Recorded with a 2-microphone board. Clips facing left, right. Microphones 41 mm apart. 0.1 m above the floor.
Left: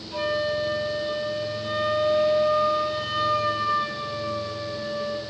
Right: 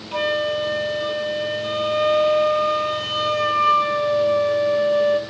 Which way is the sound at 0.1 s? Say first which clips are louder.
Right 4 dB; 70° right (ahead or behind).